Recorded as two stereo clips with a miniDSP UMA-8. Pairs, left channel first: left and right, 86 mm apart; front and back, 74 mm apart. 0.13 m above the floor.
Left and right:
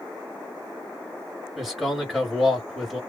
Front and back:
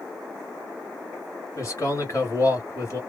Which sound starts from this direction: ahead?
A man speaking, at 1.6 s.